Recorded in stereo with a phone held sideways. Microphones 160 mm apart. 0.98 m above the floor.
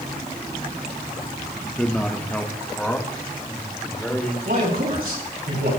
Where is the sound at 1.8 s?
5° left (ahead or behind), 1.2 m; by 4.3 s 10° left (ahead or behind), 2.5 m.